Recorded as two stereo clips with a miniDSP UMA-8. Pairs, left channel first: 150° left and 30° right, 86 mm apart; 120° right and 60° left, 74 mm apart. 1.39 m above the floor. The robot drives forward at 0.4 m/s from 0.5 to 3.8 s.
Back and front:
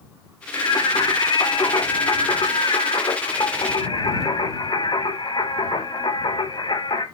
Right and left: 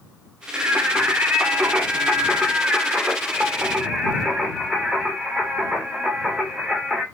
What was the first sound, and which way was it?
Singing, 120° left.